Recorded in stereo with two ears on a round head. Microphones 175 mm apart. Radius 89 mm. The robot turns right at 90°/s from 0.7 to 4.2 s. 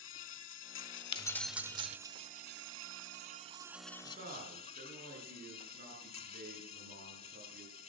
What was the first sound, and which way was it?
An insect, 80° left.